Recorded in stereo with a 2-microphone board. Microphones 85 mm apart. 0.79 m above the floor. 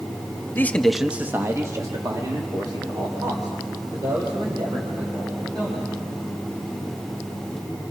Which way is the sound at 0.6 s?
25° left (ahead or behind).